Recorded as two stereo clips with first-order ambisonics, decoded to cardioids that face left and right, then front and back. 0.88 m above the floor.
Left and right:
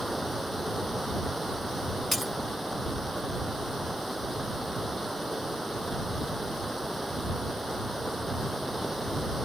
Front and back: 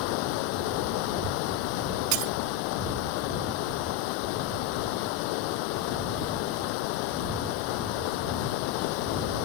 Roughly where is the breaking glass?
Behind.